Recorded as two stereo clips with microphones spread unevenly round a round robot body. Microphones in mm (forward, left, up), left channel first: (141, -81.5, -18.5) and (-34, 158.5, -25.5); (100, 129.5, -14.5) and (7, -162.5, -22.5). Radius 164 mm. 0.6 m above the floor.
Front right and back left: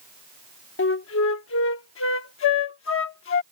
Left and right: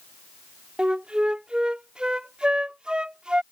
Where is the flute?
20° right.